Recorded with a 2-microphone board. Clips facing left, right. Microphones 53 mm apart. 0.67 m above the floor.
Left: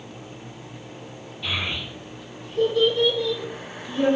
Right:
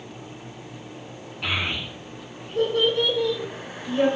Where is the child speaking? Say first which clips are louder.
Right 2 dB; 80° right, 5 m.